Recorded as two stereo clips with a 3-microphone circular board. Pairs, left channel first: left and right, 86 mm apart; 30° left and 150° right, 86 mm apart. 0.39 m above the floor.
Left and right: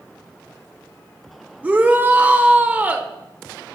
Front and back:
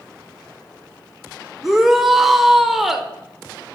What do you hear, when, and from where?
1.6 s a shout: 70° right, 0.8 m